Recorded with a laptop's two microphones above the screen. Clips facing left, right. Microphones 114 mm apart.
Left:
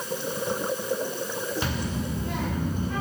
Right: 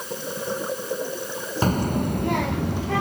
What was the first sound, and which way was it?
A child speaking, 40° right (ahead or behind).